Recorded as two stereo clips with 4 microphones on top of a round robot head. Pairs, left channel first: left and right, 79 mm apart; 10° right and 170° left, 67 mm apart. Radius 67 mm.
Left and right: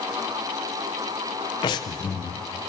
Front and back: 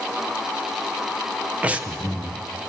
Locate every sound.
1.6 s breathing: 105° left, 0.7 m